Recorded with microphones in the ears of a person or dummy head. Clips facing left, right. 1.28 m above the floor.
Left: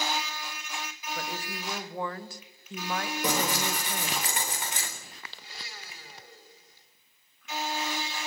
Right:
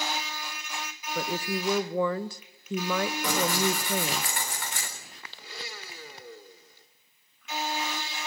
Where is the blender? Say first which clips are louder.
Right 10 dB; 70° right (ahead or behind), 2.5 m.